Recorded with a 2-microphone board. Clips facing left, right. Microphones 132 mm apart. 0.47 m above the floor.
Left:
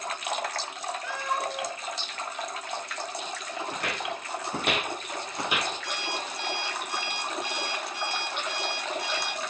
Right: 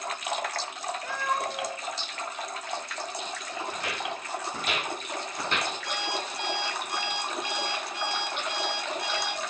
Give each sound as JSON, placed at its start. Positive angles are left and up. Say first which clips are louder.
{"t": 1.0, "sound": "a cat meowing", "louder": "right 1 dB", "side_deg": -50, "distance_m": 1.1}
{"t": 3.7, "sound": "footsteps", "louder": "left 2 dB", "side_deg": 60, "distance_m": 2.0}
{"t": 5.8, "sound": "an alarm clock", "louder": "right 2 dB", "side_deg": 75, "distance_m": 2.5}